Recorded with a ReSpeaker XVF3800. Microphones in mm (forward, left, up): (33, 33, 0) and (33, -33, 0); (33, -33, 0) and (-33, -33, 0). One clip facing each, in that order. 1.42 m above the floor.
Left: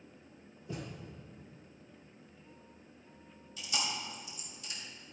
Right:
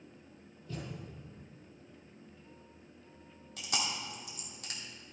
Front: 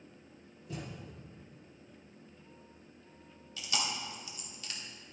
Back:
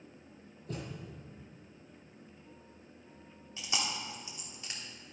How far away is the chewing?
About 2 m.